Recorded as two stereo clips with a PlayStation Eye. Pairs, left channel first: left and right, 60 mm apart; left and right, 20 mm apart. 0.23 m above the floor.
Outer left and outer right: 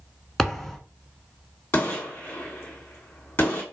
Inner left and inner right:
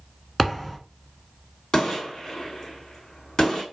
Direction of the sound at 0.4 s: 5° left (ahead or behind).